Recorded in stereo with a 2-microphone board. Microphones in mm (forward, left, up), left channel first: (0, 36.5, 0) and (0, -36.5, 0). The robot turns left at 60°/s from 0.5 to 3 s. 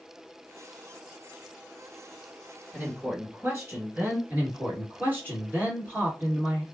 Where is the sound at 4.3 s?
25° right (ahead or behind), 2 m.